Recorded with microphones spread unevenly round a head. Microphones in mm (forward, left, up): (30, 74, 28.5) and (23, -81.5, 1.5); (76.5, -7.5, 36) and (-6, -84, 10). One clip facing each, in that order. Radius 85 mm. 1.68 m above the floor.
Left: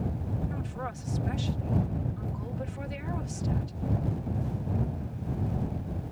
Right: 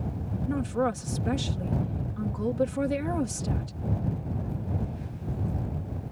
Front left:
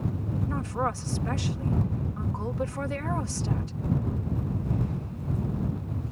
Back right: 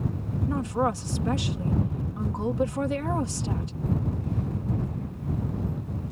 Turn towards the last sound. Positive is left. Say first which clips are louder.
# right 10 dB, back right 5 dB
turn(degrees=-65)